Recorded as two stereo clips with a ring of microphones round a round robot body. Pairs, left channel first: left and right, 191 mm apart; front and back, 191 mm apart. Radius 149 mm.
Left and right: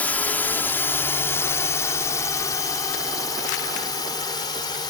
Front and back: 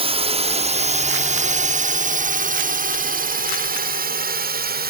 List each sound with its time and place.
0.0 s a drone: 165° left; by 4.9 s 160° left